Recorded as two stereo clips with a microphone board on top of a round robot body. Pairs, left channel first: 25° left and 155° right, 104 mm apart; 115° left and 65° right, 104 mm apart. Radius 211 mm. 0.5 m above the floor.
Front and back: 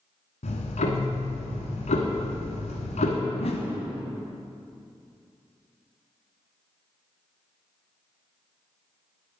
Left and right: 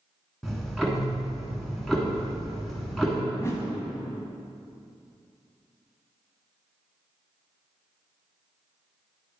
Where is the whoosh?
50° left, 1.0 m.